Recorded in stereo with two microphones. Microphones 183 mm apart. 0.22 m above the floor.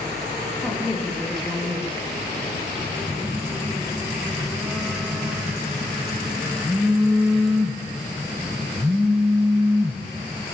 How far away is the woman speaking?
About 7.5 m.